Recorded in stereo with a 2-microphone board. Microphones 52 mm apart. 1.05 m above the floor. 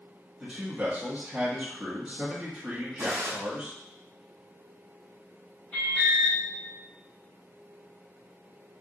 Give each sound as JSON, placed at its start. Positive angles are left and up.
{"t": 0.4, "sound": "a man speaking", "side_deg": -10, "distance_m": 1.5}
{"t": 3.0, "sound": "a gunshot", "side_deg": -50, "distance_m": 1.7}
{"t": 5.7, "sound": "an alarm", "side_deg": 30, "distance_m": 1.8}